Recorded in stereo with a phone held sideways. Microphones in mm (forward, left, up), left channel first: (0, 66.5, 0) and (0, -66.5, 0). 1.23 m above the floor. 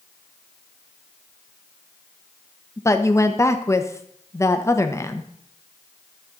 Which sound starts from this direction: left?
A woman speaking, at 2.8 s.